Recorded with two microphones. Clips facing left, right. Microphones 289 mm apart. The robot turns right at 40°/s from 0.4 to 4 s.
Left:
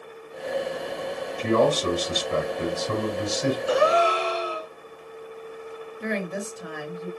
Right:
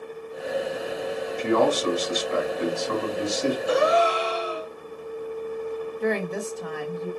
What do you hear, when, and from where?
1.4 s a man speaking: 70° left, 1.5 m; by 3.6 s 160° left, 1.5 m
3.7 s a gasp: centre (ahead or behind), 2.0 m; by 4.7 s 10° left (ahead or behind), 2.0 m
6.0 s a woman speaking: 20° left (ahead or behind), 1.0 m